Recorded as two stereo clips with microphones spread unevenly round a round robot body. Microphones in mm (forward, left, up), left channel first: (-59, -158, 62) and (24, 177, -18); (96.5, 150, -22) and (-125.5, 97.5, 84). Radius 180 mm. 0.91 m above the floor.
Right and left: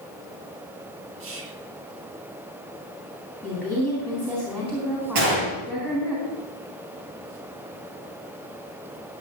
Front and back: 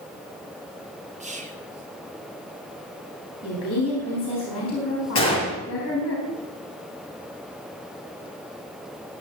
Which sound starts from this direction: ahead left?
A gunshot, at 5.2 s.